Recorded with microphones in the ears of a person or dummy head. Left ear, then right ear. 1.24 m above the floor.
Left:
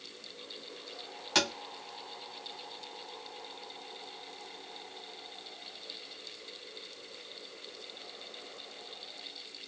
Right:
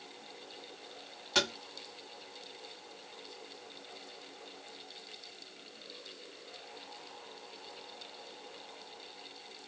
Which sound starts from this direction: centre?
Tapping, at 1.4 s.